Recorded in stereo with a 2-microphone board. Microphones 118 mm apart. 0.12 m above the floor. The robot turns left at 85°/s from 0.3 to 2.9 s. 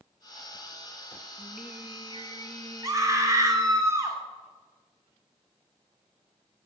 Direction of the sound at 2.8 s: 25° right (ahead or behind).